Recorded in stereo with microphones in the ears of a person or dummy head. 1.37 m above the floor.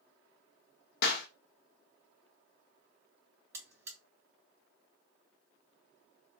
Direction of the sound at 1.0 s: 60° left (ahead or behind).